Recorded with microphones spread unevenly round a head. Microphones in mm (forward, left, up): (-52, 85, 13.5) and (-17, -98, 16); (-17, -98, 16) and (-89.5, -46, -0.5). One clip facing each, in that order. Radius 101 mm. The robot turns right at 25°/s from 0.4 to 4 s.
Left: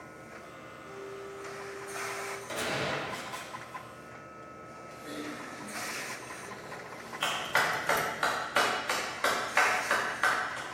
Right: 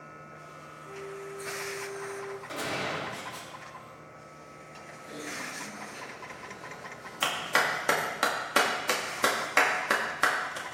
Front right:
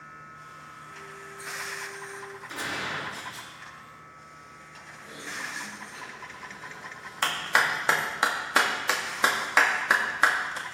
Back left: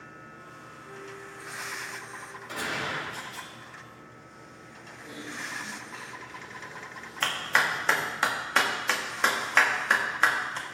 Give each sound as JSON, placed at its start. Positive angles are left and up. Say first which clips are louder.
{"t": 0.9, "sound": "a flute", "louder": "right 2 dB, back left 3 dB", "azimuth_deg": -165, "distance_m": 0.9}
{"t": 2.5, "sound": "a gunshot", "louder": "left 2 dB, back left 1 dB", "azimuth_deg": 160, "distance_m": 4.5}
{"t": 4.9, "sound": "typing on a keyboard", "louder": "left 2 dB, even", "azimuth_deg": 95, "distance_m": 2.5}
{"t": 7.2, "sound": "a clap", "louder": "right 2 dB, front right 1 dB", "azimuth_deg": -110, "distance_m": 1.7}